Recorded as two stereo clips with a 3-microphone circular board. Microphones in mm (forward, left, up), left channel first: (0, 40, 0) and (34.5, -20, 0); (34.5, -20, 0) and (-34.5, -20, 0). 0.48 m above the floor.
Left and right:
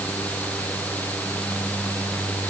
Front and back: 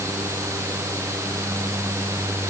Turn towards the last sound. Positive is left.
No sound to turn to.